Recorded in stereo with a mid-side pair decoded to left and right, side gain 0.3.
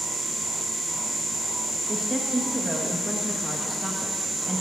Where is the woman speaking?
5° right, 1.7 m.